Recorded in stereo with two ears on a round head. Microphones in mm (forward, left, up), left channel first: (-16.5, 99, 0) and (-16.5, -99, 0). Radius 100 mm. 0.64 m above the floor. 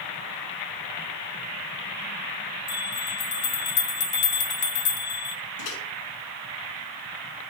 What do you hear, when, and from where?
2.7 s a bell: 55° left (ahead or behind), 3.5 m
5.6 s a microwave: 85° left, 6 m